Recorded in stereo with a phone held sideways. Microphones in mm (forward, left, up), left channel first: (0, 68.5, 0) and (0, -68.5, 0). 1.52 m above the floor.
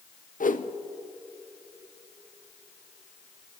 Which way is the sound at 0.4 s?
80° left.